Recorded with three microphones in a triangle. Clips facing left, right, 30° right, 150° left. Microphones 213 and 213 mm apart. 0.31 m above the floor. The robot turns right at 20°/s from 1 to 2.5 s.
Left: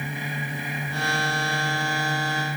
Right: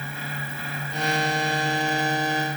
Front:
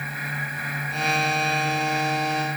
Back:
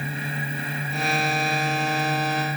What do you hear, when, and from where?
Only background noise.